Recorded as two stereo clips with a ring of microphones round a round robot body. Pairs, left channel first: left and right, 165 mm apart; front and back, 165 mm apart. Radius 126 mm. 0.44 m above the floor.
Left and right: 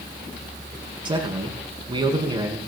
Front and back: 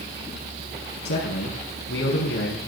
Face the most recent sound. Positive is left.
turn(degrees=-30)